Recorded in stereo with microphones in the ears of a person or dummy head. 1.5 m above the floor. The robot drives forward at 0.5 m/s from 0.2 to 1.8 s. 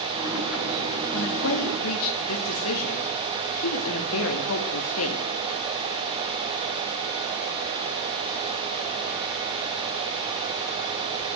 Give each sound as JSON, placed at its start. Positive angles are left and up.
{"t": 1.1, "sound": "a woman speaking", "side_deg": 80, "distance_m": 2.0}